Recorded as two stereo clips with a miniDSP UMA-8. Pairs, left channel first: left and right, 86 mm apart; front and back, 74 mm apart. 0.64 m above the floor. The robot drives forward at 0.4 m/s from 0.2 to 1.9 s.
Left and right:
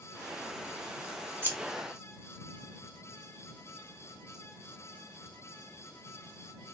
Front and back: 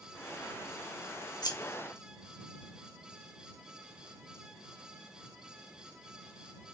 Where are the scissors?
25° right, 0.7 m.